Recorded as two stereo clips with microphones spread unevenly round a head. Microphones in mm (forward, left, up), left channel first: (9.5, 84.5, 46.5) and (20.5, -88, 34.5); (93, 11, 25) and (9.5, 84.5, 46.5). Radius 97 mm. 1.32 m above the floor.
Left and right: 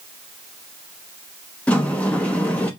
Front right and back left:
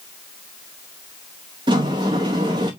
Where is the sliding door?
170° left, 0.6 m.